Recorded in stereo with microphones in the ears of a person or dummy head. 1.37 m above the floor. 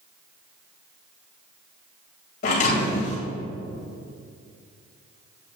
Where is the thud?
40° left (ahead or behind), 2 m.